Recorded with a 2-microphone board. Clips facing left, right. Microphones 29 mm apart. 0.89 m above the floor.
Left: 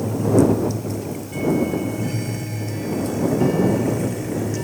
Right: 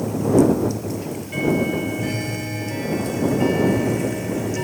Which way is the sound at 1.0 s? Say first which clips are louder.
Right 1 dB; 30° right (ahead or behind).